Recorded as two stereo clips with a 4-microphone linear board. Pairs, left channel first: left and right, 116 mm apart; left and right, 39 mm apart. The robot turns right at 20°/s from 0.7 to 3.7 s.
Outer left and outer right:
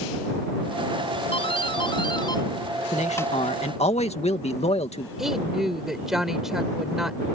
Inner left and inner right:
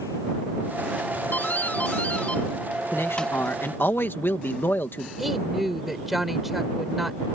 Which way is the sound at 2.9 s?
80° left.